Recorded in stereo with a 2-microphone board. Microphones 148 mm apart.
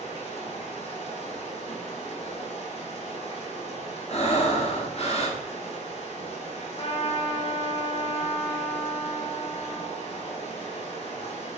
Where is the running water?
45° left (ahead or behind), 2.5 m.